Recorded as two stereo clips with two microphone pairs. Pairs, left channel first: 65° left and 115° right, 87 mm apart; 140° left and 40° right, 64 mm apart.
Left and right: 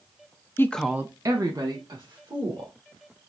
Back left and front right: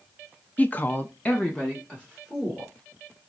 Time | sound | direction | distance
0.6 | a woman speaking | 90° left | 0.6 m